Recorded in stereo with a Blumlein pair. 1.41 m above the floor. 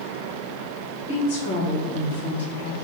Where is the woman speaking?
65° left, 1.8 m.